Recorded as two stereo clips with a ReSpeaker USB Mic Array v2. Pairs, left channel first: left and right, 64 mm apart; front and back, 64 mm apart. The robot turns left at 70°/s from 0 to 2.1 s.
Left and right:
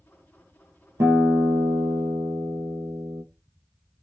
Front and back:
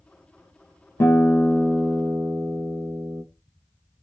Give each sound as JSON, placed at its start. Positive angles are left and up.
{"t": 1.0, "sound": "a guitar", "azimuth_deg": -50, "distance_m": 0.9}